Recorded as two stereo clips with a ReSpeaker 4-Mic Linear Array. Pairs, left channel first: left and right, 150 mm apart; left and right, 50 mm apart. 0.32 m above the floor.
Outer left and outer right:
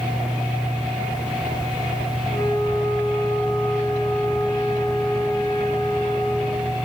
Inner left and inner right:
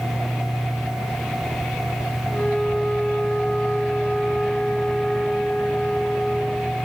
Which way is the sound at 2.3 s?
35° left (ahead or behind).